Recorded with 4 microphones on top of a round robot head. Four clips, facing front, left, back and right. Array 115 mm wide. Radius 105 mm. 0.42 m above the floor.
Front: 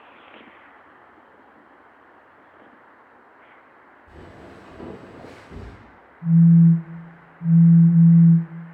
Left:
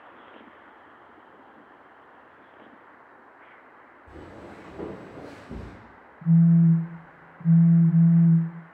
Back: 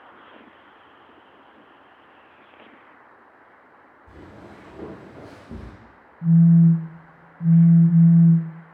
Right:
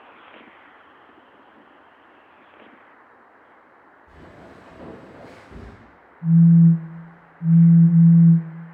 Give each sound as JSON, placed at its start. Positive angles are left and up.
{"t": 4.1, "sound": "footsteps", "azimuth_deg": 115, "distance_m": 1.8}
{"t": 6.2, "sound": "a phone buzzing", "azimuth_deg": 165, "distance_m": 1.0}